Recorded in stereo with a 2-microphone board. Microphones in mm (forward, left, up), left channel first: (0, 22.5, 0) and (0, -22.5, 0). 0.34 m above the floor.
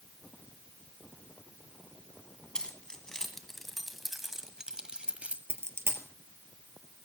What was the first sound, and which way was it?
Keys jangling, 15° left (ahead or behind).